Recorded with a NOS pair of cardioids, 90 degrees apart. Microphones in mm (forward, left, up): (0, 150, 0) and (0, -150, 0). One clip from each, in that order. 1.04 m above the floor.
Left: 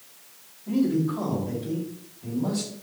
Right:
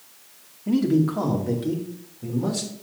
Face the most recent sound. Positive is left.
turn(degrees=-70)